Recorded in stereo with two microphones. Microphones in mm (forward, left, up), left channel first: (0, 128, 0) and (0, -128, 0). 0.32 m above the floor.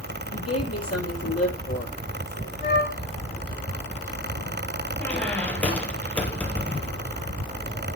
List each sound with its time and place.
0.3 s a woman speaking: 65° left (ahead or behind), 8.5 m; by 2.5 s 60° left (ahead or behind), 7.5 m
2.6 s a flute: 45° left (ahead or behind), 4 m
5.0 s a squeak: 5° left (ahead or behind), 2.5 m